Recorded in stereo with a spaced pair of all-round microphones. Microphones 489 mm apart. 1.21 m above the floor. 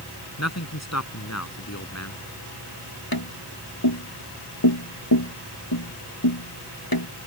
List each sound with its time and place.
0.4 s a man speaking: 30° left (ahead or behind)
3.1 s tapping: 45° left (ahead or behind)